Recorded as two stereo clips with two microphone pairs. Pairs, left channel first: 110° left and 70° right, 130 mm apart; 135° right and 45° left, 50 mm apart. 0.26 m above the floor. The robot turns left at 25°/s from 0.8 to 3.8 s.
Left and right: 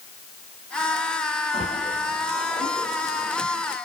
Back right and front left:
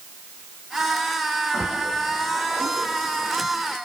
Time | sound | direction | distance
1.5 | a splash | 90° left | 9 m